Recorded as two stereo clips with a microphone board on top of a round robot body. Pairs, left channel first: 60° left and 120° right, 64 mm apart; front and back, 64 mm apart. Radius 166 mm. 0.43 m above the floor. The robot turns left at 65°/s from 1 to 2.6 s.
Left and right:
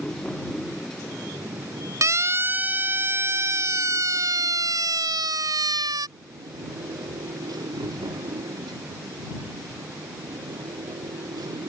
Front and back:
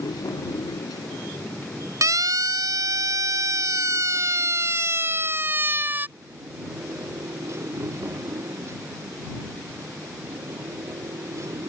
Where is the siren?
150° right; by 6.1 s 120° right.